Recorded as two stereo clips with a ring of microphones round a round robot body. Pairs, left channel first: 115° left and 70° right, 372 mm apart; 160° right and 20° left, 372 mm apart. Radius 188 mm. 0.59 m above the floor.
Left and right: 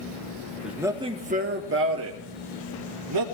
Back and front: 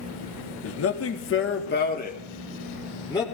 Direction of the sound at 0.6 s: 155° right.